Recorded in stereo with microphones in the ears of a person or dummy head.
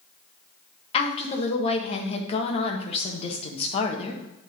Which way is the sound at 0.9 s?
35° left (ahead or behind).